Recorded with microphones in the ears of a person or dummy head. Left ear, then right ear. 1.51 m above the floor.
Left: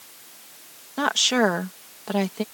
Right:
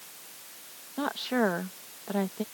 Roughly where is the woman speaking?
Left.